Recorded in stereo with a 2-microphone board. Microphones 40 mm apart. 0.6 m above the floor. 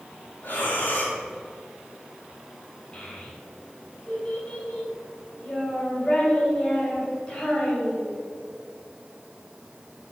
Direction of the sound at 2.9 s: 30° left (ahead or behind).